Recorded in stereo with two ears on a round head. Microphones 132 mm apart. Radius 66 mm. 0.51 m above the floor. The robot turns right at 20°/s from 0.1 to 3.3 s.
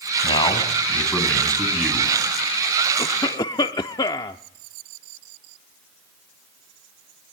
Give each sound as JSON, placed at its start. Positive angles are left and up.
{"t": 0.2, "sound": "a man speaking", "azimuth_deg": 145, "distance_m": 4.5}
{"t": 3.0, "sound": "a cough", "side_deg": 25, "distance_m": 0.7}